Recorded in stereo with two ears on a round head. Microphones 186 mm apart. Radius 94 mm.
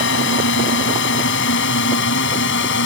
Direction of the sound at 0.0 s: 65° left (ahead or behind).